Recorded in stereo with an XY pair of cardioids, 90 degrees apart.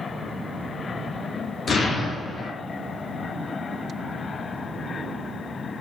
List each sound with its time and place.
1.7 s an explosion: 55° left, 1.0 m